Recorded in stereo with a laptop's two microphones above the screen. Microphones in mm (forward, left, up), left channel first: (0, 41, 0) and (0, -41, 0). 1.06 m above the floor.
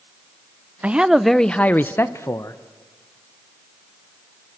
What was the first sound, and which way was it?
A man speaking, 15° right (ahead or behind).